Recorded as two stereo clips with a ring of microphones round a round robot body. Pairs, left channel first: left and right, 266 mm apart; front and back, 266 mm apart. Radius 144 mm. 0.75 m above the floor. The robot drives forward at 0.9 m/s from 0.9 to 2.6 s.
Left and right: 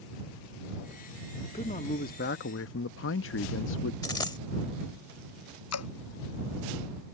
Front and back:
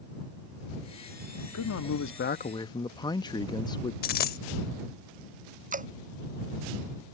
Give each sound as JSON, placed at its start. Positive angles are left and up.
{"t": 1.5, "sound": "a man speaking", "azimuth_deg": 20}
{"t": 4.0, "sound": "a dropped coin", "azimuth_deg": 25}
{"t": 5.7, "sound": "dripping", "azimuth_deg": 120}